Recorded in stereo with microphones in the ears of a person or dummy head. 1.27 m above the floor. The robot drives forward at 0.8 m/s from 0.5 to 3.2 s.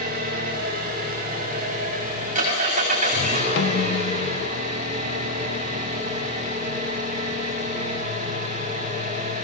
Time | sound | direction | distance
0.0 | an engine running | 50° right (ahead or behind) | 6.5 m
3.6 | a snare drum | 70° left (ahead or behind) | 1.7 m